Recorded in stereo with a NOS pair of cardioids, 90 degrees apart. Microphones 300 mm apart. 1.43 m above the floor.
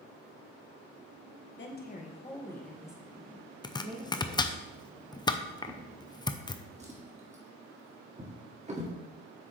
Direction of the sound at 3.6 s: 15° left.